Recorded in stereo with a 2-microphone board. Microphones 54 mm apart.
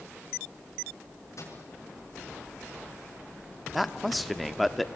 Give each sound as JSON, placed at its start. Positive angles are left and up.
{"t": 1.4, "sound": "a microwave", "side_deg": 65, "distance_m": 5.5}
{"t": 3.7, "sound": "a man speaking", "side_deg": 0, "distance_m": 1.0}